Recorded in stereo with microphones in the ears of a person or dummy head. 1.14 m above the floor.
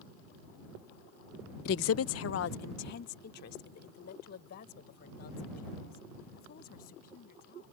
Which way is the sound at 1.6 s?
55° left (ahead or behind).